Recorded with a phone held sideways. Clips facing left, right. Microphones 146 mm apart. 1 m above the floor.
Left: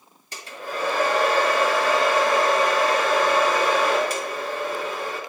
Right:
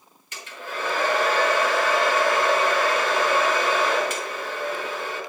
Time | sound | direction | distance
0.3 | a hair dryer | 35° left (ahead or behind) | 3 m